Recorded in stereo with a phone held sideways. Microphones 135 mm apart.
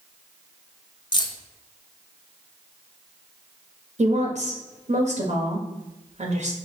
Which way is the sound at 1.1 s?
35° left (ahead or behind).